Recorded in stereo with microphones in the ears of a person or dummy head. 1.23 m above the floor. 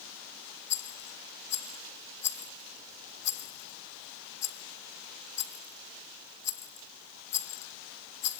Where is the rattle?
50° left (ahead or behind), 0.7 m.